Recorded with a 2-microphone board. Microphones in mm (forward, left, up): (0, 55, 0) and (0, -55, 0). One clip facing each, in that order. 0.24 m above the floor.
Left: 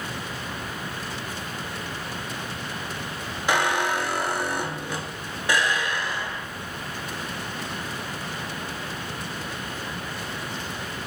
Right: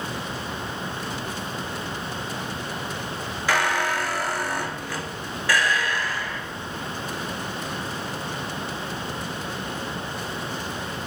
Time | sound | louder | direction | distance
3.5 | a squeak | even | 20° left (ahead or behind) | 1.2 m